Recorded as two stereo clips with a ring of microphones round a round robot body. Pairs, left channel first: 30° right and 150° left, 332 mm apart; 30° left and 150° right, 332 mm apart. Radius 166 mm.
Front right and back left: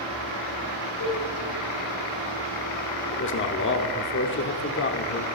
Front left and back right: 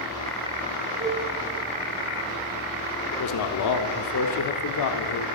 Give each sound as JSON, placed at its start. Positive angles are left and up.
{"t": 1.0, "sound": "a cowbell", "azimuth_deg": -75, "distance_m": 3.0}
{"t": 3.1, "sound": "a man speaking", "azimuth_deg": 15, "distance_m": 1.1}